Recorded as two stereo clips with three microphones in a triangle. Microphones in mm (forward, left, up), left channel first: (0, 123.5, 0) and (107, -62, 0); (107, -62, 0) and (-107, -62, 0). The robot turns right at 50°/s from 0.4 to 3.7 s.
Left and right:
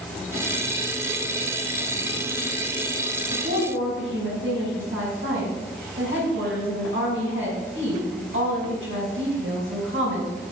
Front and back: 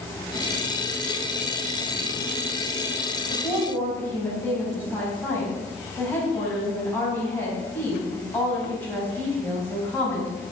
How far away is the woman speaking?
About 5 m.